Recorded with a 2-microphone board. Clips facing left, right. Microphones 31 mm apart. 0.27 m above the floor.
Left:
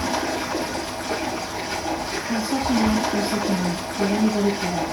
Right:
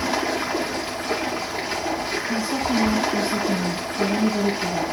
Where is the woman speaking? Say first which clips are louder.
Left 2 dB; 10° left (ahead or behind), 2.0 m.